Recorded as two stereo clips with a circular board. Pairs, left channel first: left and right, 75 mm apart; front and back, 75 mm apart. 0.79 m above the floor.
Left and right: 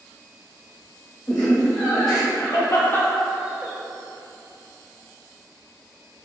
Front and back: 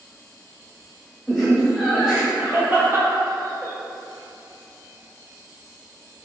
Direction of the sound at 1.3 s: 90° left.